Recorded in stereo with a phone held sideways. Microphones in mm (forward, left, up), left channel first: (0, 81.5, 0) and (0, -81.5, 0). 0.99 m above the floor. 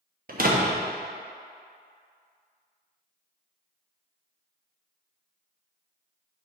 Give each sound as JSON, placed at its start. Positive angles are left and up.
{"t": 0.3, "sound": "a door slam", "side_deg": -60, "distance_m": 0.9}